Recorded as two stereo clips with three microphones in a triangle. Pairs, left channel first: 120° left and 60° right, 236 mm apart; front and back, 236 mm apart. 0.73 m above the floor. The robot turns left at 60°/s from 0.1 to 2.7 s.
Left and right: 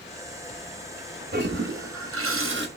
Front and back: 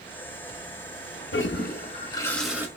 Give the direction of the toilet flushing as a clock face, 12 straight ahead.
1 o'clock.